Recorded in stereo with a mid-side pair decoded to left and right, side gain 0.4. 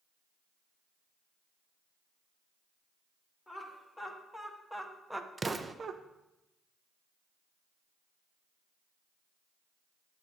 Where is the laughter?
25° left, 2.5 m; by 6.0 s 55° right, 0.6 m.